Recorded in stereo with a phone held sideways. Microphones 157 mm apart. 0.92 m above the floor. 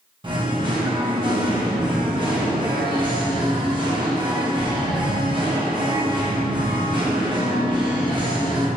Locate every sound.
0.2 s singing: 30° right (ahead or behind), 1.0 m